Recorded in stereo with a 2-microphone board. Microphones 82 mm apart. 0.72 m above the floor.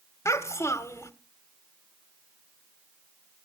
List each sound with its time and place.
0.2 s a child speaking: 35° left (ahead or behind), 1.4 m